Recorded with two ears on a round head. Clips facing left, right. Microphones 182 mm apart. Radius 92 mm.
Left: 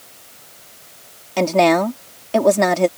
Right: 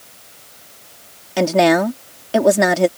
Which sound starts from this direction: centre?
A woman speaking, at 1.4 s.